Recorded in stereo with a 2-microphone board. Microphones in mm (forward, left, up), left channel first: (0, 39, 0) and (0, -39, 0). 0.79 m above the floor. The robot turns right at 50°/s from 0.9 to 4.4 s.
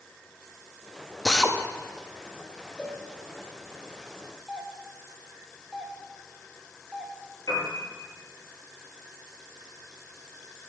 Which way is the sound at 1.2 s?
10° left (ahead or behind).